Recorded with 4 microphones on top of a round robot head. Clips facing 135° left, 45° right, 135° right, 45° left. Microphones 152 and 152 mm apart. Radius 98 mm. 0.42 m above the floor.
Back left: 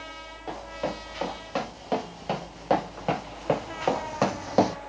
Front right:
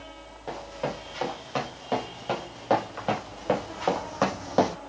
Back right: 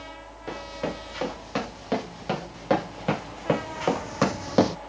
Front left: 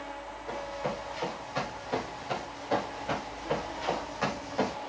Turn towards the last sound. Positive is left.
turn(degrees=-145)